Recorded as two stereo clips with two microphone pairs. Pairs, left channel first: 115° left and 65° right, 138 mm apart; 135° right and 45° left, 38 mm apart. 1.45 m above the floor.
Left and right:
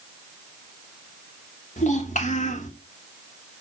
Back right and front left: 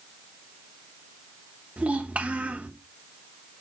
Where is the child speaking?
90° left, 2.5 m.